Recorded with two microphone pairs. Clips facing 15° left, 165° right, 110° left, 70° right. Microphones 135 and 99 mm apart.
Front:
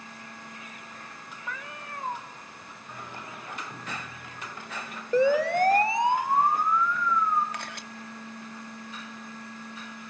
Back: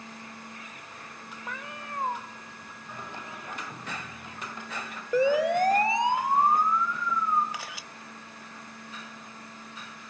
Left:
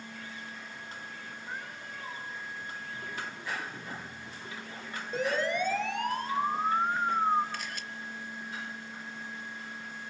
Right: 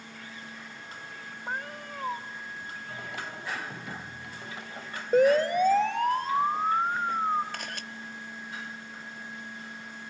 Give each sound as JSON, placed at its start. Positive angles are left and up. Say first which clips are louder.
{"t": 1.5, "sound": "a cat meowing", "louder": "even, right 7 dB", "azimuth_deg": -105, "distance_m": 2.5}
{"t": 2.9, "sound": "singing", "louder": "back 1 dB, right 3 dB", "azimuth_deg": -90, "distance_m": 8.5}
{"t": 5.1, "sound": "a siren", "louder": "front 1 dB, right 9 dB", "azimuth_deg": -85, "distance_m": 2.5}
{"t": 7.5, "sound": "a camera shutter", "louder": "front 1 dB, right 1 dB", "azimuth_deg": -80, "distance_m": 0.7}